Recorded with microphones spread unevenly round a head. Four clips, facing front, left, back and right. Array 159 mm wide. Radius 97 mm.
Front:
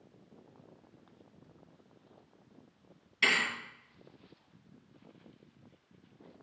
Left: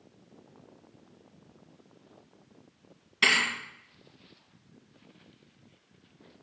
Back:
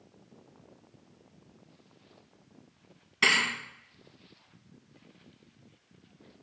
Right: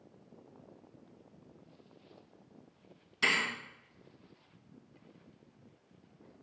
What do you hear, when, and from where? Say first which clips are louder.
3.2 s a thud: left 5 dB, back 3 dB; 125° left, 5.5 m